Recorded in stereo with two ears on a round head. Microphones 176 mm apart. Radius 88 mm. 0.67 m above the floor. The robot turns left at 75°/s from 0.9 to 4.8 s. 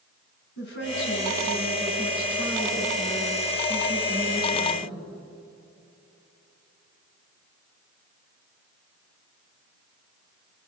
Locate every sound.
0.6 s a woman speaking: 115° left, 7 m; by 5.0 s 175° right, 7 m